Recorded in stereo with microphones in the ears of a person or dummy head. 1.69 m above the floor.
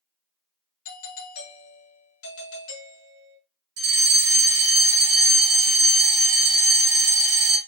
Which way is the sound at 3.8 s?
60° right (ahead or behind).